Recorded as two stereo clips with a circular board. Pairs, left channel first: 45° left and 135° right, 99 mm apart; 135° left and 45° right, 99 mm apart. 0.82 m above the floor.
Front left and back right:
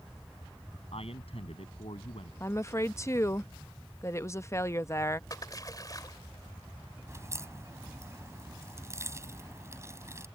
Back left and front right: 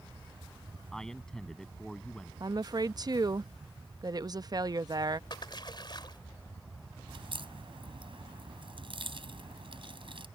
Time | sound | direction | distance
0.9 | a man speaking | 50° left | ?
2.4 | a woman speaking | 10° right | ?
5.3 | a splash | 95° left | ?
7.1 | a crack | 75° right | ?